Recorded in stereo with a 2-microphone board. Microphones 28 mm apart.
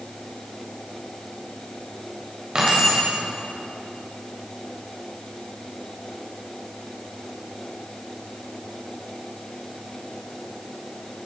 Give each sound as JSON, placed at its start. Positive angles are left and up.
{"t": 2.5, "sound": "keys jangling", "side_deg": -25, "distance_m": 4.0}